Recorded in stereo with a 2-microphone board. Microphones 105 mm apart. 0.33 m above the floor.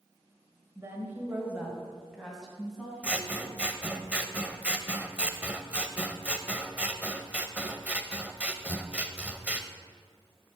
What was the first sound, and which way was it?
A woman speaking, 30° right (ahead or behind).